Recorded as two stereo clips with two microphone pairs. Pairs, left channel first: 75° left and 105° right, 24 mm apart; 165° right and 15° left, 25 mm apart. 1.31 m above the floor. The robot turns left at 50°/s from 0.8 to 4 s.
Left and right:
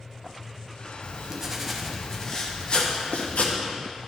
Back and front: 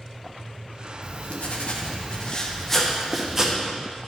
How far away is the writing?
About 1.0 m.